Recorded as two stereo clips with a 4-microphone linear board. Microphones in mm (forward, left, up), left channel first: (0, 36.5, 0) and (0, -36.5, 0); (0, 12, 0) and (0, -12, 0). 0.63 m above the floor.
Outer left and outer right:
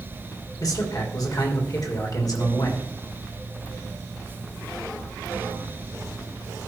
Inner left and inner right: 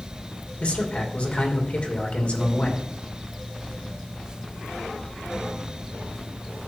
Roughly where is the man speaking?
Left.